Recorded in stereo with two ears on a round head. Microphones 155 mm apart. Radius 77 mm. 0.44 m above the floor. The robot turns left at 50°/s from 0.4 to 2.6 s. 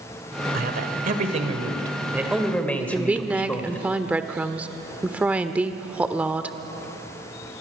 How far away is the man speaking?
About 2 m.